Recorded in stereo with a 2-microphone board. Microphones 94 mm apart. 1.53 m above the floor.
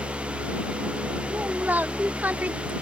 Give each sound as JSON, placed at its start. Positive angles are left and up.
{"t": 1.3, "sound": "a woman speaking", "side_deg": -20}